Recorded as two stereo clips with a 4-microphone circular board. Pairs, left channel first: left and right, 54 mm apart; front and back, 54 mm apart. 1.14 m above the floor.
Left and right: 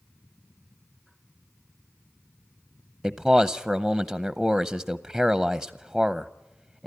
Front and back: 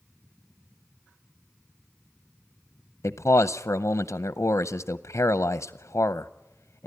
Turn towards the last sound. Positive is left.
turn(degrees=-5)